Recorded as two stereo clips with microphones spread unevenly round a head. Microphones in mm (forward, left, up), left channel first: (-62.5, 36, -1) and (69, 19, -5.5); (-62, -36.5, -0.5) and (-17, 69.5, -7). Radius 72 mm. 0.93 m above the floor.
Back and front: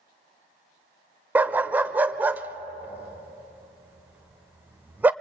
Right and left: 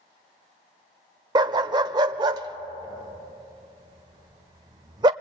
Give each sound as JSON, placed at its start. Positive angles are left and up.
{"t": 1.4, "sound": "a dog barking", "azimuth_deg": 60, "distance_m": 0.7}